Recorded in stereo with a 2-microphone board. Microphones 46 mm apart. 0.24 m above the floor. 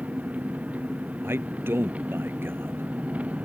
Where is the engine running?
35° right (ahead or behind).